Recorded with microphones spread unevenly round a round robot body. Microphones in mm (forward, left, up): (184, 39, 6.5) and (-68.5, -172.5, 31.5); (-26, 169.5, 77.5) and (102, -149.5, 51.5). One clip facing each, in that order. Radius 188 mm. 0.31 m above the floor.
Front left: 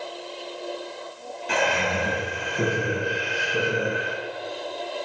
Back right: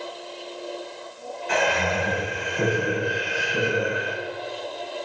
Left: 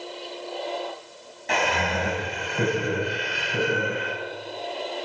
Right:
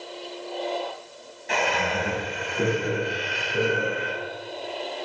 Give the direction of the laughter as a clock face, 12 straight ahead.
9 o'clock.